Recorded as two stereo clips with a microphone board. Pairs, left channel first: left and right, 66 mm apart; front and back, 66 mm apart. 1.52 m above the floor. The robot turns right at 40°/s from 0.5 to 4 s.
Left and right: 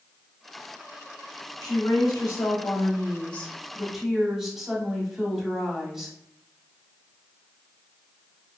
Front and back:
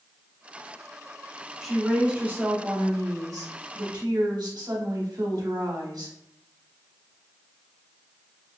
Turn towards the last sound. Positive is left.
turn(degrees=-170)